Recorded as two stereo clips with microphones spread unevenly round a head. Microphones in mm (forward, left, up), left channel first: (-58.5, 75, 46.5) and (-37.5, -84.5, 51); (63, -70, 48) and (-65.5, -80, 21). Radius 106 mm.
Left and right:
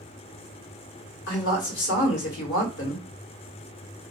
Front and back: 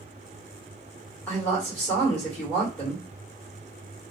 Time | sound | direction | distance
1.3 | a woman speaking | 85° left | 1.1 m